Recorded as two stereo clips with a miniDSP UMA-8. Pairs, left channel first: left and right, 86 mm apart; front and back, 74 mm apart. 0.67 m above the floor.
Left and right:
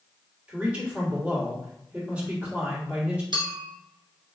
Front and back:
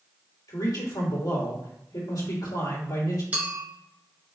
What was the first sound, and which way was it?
A man speaking, 20° right.